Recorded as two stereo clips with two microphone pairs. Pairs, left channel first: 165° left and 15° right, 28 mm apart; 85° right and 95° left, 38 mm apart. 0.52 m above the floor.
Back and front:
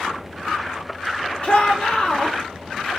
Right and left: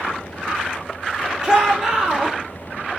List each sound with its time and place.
1.4 s a shout: 160° left, 1.8 m